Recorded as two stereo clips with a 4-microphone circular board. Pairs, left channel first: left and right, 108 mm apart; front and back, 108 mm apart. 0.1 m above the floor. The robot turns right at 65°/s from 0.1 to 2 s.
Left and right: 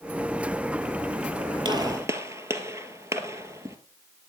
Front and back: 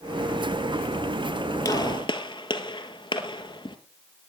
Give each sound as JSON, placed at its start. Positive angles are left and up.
{"t": 1.6, "sound": "a gunshot", "azimuth_deg": -55, "distance_m": 1.4}